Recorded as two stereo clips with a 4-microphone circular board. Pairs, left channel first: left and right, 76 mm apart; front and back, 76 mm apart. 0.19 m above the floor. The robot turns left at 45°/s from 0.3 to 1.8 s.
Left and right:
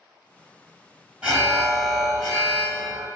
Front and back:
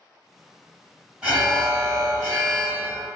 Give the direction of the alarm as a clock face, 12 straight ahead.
4 o'clock.